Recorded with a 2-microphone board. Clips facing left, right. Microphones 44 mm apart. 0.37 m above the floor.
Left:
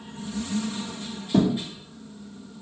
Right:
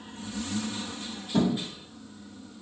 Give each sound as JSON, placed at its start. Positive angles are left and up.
{"t": 1.3, "sound": "a thud", "side_deg": 80, "distance_m": 1.3}